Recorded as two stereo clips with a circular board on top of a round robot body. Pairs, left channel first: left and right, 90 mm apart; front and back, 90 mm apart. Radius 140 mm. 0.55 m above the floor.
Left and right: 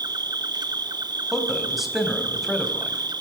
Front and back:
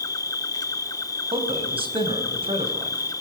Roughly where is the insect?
Ahead right.